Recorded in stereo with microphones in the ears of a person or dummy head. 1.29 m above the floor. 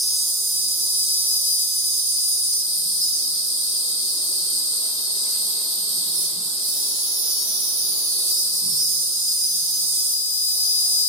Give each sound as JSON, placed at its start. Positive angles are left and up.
{"t": 0.0, "sound": "an insect", "side_deg": -10, "distance_m": 1.7}